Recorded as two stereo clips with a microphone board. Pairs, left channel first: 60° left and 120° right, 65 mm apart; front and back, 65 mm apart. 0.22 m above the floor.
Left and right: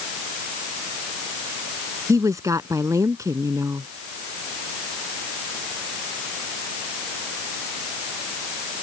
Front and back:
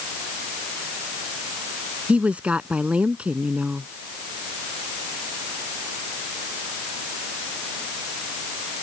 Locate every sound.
2.1 s a woman speaking: 110° right